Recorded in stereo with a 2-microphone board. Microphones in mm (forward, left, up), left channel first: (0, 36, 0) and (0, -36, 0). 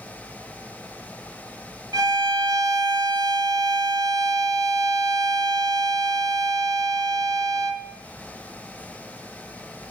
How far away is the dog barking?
I don't hear a dog barking.